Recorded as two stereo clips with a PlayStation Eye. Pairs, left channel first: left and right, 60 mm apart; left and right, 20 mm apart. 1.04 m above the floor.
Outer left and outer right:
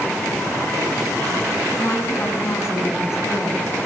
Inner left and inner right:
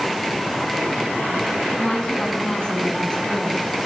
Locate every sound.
1.7 s a woman speaking: 40° left (ahead or behind), 7.5 m; by 3.7 s 55° left (ahead or behind), 10 m